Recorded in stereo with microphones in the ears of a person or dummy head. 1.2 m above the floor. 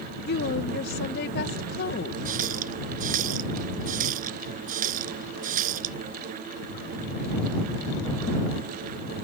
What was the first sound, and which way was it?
A woman speaking, 50° left (ahead or behind).